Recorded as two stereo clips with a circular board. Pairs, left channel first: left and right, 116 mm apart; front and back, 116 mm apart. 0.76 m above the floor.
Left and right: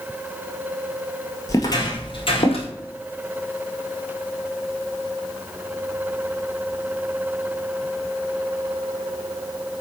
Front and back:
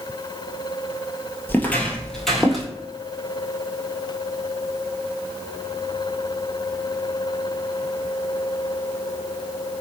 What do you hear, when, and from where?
1.5 s footsteps: 60° left, 0.8 m; by 2.7 s 90° left, 1.3 m